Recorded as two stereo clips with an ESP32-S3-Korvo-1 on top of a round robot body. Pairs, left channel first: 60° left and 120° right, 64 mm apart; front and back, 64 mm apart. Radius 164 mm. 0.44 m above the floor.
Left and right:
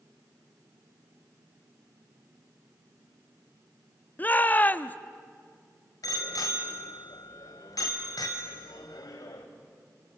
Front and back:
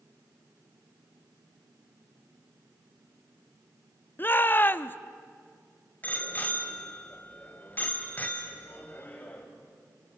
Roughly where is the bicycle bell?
Ahead left.